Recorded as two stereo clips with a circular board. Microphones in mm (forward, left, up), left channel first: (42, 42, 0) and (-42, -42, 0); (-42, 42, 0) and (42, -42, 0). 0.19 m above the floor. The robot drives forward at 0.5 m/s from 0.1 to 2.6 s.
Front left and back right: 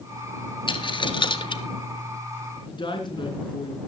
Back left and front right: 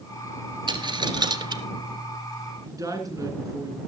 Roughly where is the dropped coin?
Ahead.